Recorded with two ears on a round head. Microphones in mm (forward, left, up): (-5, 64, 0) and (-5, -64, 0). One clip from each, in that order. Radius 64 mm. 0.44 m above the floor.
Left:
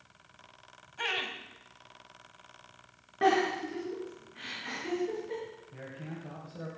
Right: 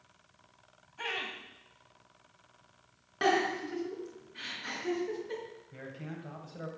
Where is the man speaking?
50° right (ahead or behind), 2.5 m.